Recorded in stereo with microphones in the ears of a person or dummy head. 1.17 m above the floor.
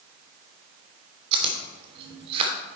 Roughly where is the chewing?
Right.